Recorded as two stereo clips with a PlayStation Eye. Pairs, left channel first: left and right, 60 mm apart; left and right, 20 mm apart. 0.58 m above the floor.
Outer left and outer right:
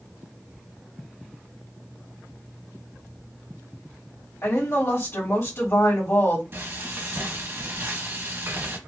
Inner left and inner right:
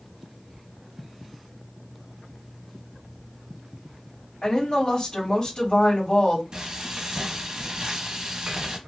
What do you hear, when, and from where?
4.4 s a woman speaking: 50° left (ahead or behind), 1.8 m
6.5 s frying: 40° right (ahead or behind), 0.8 m